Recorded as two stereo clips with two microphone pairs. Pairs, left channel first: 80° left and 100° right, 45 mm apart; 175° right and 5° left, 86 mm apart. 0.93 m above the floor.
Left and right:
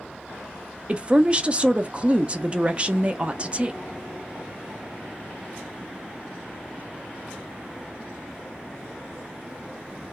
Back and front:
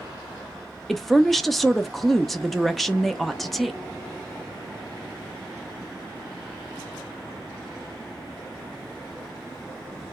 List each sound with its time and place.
0.9 s a woman speaking: 95° right, 0.5 m